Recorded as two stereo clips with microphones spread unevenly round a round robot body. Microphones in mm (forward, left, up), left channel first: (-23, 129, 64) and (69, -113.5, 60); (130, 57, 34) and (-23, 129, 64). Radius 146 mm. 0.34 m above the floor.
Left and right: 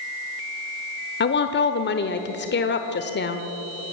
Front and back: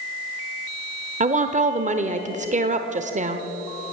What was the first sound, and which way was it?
A woman speaking, 120° left.